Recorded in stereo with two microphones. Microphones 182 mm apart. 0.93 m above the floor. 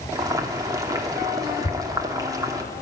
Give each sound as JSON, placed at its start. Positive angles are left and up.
{"t": 0.1, "sound": "boiling", "side_deg": -20, "distance_m": 2.5}
{"t": 1.6, "sound": "tearing paper", "side_deg": 50, "distance_m": 2.5}